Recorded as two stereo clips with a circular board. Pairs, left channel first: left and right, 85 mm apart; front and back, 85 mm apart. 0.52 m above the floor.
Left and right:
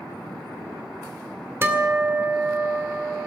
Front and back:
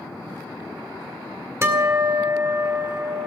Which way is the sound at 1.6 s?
140° right.